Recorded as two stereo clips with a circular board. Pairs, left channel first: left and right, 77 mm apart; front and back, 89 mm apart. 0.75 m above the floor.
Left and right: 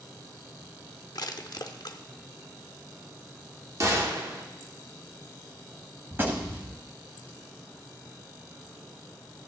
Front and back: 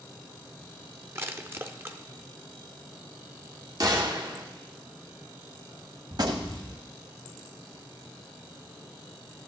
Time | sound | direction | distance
1.1 | crushing | 115° left | 0.6 m
3.8 | a gunshot | 135° right | 1.2 m
6.1 | a gunshot | 150° right | 1.1 m